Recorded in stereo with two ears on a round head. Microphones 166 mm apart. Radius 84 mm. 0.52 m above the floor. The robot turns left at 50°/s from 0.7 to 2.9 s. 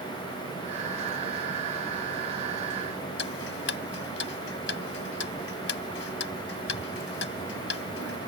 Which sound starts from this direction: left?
Ticking, at 3.2 s.